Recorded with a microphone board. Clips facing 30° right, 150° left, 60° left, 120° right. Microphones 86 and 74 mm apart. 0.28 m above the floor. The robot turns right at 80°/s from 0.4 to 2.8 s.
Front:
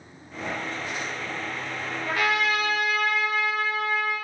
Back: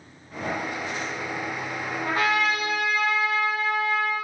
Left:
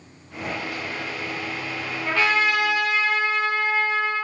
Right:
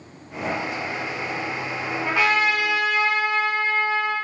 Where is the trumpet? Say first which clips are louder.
Back 1 dB, even; 160° left, 0.8 m; by 4.2 s 140° right, 0.8 m.